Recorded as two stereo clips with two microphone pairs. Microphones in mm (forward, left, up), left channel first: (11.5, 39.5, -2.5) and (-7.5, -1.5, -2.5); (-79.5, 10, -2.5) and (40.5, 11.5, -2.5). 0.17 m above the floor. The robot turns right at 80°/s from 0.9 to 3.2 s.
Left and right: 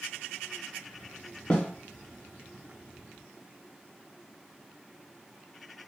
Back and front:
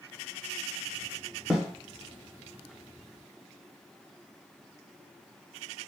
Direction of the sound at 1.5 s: 85° left.